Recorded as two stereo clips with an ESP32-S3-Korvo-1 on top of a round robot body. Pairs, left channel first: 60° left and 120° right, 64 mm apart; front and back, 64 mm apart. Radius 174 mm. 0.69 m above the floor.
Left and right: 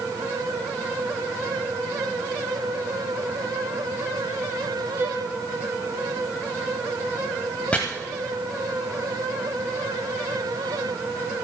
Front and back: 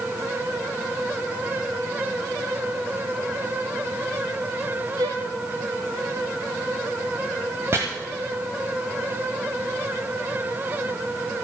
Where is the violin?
175° right, 0.6 m.